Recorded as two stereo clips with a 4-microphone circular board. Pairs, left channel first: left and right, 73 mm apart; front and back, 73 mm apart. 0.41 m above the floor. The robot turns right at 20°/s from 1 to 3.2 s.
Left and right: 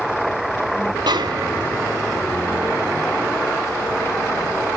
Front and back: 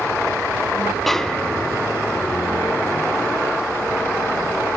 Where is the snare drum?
90° right, 0.7 m; by 1.9 s 70° right, 0.7 m.